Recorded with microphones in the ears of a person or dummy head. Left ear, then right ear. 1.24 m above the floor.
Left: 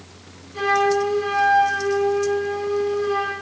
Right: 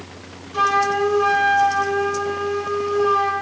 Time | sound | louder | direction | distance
0.5 | a flute | right 1 dB | 40° right (ahead or behind) | 3 m